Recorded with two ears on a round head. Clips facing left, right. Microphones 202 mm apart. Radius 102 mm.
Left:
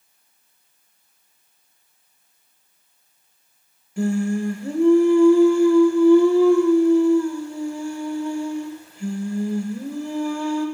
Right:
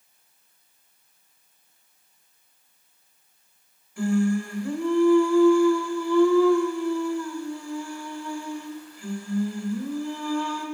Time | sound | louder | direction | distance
4.0 | singing | left 1 dB | 20° left (ahead or behind) | 0.6 m